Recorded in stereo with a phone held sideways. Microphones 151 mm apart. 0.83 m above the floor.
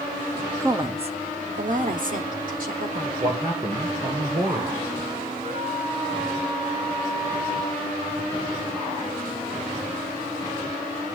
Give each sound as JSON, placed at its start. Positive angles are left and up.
{"t": 0.6, "sound": "a woman speaking", "side_deg": -15, "distance_m": 0.6}
{"t": 3.2, "sound": "a man speaking", "side_deg": -30, "distance_m": 3.0}
{"t": 5.4, "sound": "a flute", "side_deg": -85, "distance_m": 10.0}